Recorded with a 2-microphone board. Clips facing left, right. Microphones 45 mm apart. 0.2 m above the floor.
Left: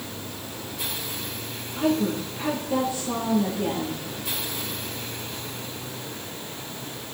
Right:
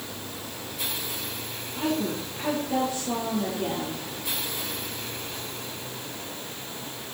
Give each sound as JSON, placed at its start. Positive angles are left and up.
{"t": 1.8, "sound": "a woman speaking", "side_deg": 0, "distance_m": 5.0}